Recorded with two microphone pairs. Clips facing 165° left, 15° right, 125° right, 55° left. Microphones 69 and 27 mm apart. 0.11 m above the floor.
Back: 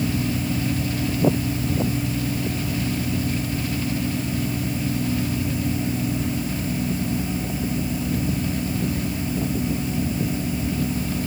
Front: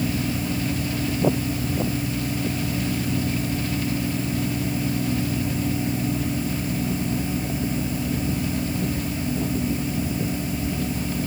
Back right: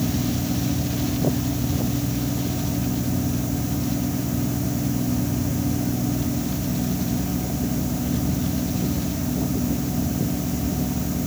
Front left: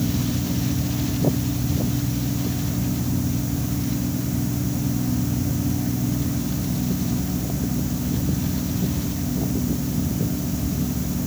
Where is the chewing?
No chewing in this recording.